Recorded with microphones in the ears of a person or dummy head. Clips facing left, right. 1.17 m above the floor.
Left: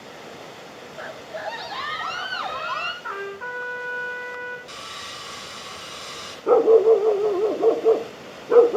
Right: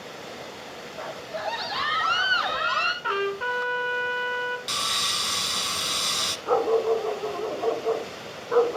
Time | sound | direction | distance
1.0 | a scream | 15° left (ahead or behind) | 1.4 m
3.0 | a trumpet | 45° right (ahead or behind) | 1.9 m
4.7 | sawing | 65° right (ahead or behind) | 2 m
6.5 | a dog barking | 25° left (ahead or behind) | 0.6 m